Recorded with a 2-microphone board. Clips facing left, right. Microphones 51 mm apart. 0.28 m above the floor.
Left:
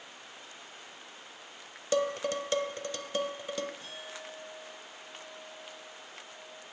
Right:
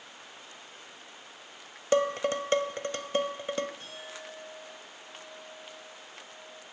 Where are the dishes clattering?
35° right (ahead or behind), 0.8 m.